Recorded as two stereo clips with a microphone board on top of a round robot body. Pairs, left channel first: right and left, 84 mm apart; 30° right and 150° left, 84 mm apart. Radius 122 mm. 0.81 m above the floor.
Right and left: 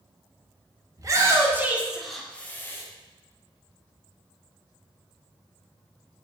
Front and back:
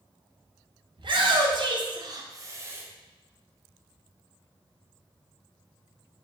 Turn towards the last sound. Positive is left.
turn(degrees=-150)